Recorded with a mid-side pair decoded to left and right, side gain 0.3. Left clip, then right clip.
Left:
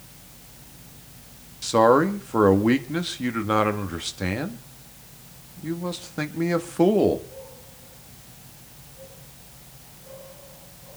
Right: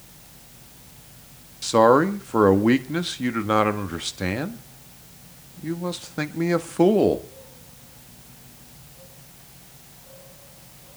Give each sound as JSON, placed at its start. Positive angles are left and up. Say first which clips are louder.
{"t": 1.6, "sound": "a man speaking", "louder": "right 1 dB", "azimuth_deg": -20, "distance_m": 1.7}